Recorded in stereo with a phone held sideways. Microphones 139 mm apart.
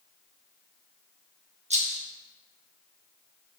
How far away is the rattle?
About 1.0 m.